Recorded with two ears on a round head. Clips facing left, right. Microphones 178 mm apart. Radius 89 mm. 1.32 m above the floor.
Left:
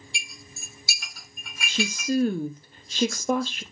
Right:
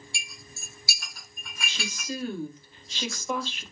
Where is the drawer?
No drawer in this recording.